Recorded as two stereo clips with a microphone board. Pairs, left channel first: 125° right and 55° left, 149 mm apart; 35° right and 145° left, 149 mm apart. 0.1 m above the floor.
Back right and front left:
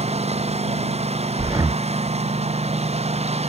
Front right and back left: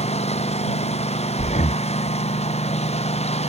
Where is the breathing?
10° right.